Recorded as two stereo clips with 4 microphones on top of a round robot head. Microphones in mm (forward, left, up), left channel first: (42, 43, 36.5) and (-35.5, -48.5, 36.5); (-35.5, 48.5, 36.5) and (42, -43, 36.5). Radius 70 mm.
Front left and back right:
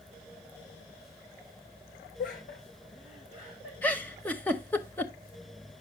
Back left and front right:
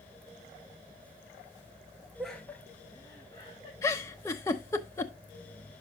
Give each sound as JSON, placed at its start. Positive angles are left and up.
{"t": 2.2, "sound": "laughter", "azimuth_deg": 35, "distance_m": 1.1}
{"t": 3.8, "sound": "a giggle", "azimuth_deg": 105, "distance_m": 0.7}